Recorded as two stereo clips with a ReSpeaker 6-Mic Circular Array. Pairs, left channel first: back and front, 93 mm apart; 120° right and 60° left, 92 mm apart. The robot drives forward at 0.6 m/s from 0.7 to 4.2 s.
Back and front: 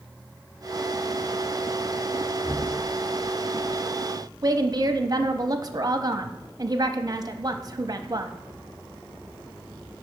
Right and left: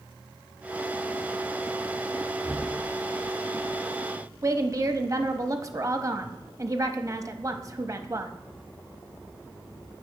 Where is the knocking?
120° left, 1.1 m; by 2.8 s 130° left, 1.2 m.